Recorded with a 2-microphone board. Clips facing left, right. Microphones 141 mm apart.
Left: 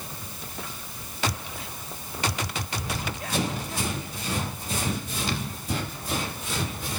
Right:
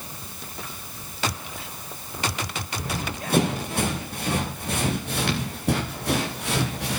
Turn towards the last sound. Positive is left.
turn(degrees=-75)  # may be behind; listen again after turning